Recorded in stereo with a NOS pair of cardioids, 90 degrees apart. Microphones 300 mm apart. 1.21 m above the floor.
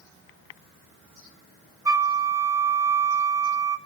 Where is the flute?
10° right, 1.5 m.